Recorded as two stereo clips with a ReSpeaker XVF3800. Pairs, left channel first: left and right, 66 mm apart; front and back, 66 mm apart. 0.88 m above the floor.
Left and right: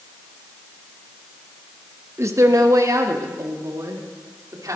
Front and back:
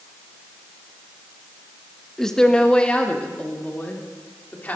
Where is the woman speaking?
80° right, 1.2 m; by 4.8 s 65° right, 3 m.